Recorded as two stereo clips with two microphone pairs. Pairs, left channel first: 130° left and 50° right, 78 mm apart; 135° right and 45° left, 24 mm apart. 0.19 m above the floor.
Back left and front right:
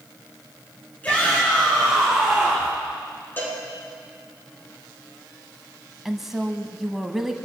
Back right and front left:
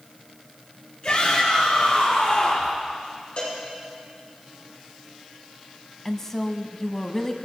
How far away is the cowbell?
About 6.5 m.